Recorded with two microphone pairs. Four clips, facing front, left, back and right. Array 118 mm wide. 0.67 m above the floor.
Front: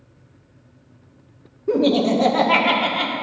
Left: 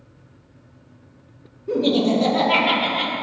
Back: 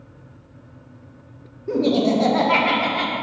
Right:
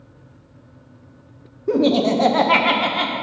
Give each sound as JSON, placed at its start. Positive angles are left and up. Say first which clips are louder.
{"t": 1.7, "sound": "laughter", "louder": "right 2 dB, front 1 dB", "azimuth_deg": -65, "distance_m": 1.1}